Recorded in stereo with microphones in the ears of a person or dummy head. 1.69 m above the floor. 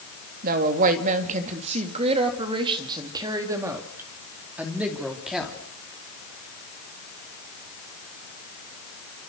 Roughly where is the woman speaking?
Right.